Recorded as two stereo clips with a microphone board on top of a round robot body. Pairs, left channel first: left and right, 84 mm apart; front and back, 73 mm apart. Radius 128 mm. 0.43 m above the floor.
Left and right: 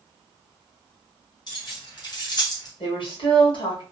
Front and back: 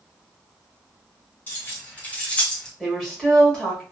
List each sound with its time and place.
1.5 s keys jangling: 60° left, 1.9 m; by 2.7 s 75° left, 1.1 m
2.8 s a woman speaking: 80° left, 2.0 m